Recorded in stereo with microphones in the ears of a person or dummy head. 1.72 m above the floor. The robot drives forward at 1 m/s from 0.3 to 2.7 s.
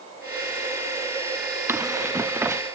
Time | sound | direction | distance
1.7 | running footsteps | 20° right (ahead or behind) | ?